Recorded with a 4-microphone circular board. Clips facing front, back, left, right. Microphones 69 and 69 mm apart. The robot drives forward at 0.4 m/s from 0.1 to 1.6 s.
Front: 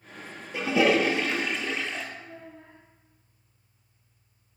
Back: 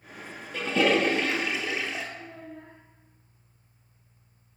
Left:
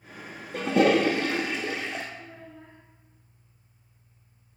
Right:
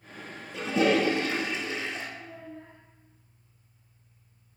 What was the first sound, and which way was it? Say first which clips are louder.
A toilet flushing: front 1 dB, left 3 dB; 75° left.